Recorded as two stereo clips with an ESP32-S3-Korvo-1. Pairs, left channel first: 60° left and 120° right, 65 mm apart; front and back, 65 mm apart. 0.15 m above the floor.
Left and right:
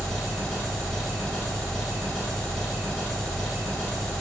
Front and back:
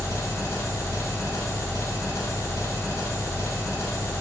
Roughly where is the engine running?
Ahead.